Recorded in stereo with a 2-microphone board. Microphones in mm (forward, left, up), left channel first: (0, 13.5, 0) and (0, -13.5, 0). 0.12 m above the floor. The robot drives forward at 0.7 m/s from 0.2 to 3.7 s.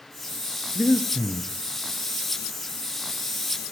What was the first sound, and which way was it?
Breathing, 40° right (ahead or behind).